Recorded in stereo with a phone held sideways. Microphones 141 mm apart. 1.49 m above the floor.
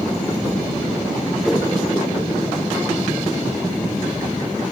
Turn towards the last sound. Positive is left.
turn(degrees=0)  # may be behind; listen again after turning